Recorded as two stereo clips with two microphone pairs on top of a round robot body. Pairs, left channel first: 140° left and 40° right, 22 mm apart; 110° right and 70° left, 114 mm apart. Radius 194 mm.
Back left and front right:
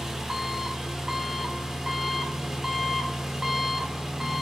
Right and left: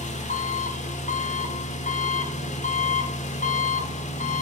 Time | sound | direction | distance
0.0 | an engine running | 110° right | 1.2 m